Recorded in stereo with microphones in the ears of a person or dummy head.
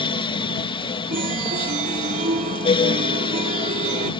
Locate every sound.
0.0 s a fan: 30° left (ahead or behind)
1.1 s a chime: 40° right (ahead or behind)